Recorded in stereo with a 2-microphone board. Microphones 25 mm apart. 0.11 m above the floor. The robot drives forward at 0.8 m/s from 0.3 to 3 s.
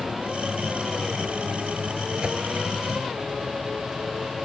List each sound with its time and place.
2.2 s a whoosh: 30° right (ahead or behind); by 2.4 s 35° right (ahead or behind)